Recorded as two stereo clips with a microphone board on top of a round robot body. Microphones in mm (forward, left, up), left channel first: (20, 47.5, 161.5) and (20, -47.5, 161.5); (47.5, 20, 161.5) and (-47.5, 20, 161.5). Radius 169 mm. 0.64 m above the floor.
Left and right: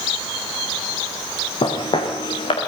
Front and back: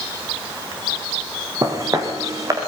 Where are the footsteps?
125° left, 3 m.